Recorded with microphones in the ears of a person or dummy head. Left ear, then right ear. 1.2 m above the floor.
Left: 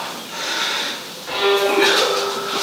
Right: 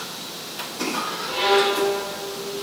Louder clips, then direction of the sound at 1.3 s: Left 3 dB; 70° left (ahead or behind).